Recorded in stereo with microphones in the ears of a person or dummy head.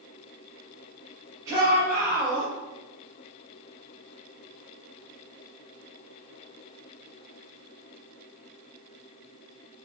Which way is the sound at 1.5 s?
25° right (ahead or behind).